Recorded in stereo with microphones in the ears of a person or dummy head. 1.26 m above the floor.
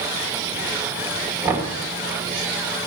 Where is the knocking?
15° right (ahead or behind), 2 m.